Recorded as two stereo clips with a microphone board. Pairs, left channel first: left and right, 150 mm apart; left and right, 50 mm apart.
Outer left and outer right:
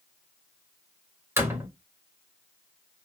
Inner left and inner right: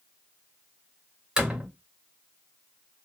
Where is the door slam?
15° right (ahead or behind), 0.9 m.